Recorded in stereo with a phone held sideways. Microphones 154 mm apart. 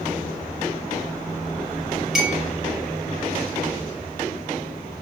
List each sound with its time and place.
2.1 s a clink: centre (ahead or behind), 1.9 m